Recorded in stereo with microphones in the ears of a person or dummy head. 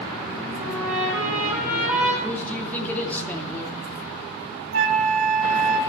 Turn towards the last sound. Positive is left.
turn(degrees=-60)  # may be behind; listen again after turning